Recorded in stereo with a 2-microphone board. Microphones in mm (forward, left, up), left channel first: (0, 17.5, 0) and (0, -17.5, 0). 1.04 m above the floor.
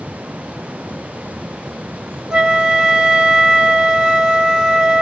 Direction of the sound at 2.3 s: 20° right (ahead or behind).